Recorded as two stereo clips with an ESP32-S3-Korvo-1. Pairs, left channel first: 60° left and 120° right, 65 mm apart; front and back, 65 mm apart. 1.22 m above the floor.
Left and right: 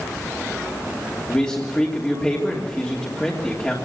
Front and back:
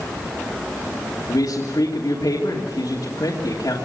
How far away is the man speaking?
About 2.5 m.